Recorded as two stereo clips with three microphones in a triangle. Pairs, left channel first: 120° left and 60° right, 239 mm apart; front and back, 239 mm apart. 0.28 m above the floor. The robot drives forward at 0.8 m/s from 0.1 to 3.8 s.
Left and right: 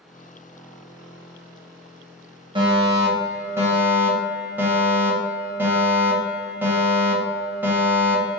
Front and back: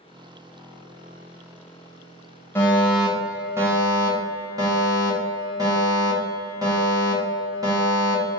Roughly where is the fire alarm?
Ahead right.